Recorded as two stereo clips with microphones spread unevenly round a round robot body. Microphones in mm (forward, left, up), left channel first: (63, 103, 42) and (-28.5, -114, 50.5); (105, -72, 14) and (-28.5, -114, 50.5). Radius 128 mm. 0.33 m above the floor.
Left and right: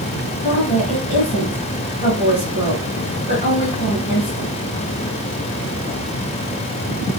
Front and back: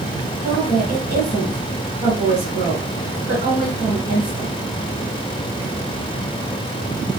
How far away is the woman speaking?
About 3 m.